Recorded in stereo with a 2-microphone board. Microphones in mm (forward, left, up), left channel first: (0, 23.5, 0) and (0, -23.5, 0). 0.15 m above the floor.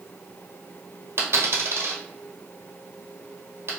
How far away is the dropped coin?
About 1.3 m.